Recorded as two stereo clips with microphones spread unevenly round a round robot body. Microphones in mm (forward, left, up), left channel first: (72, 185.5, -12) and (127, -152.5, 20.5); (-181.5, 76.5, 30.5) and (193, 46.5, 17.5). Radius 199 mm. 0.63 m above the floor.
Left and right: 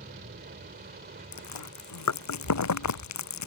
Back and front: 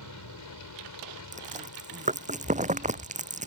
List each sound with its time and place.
0.0 s an aircraft: 145° right
1.3 s chewing: 65° left